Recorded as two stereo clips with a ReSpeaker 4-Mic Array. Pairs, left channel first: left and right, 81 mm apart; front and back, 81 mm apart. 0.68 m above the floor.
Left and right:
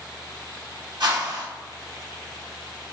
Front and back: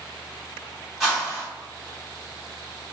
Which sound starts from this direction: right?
A whoosh, at 1.0 s.